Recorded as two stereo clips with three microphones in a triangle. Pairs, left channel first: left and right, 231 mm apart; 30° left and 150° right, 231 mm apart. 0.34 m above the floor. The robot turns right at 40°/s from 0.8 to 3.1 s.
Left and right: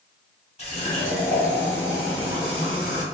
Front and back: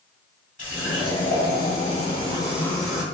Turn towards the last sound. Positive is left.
turn(degrees=125)